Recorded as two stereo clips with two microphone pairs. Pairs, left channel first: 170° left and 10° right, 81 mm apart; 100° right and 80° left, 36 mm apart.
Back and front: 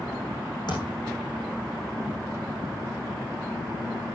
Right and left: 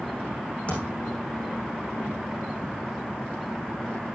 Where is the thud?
155° right, 8.5 m.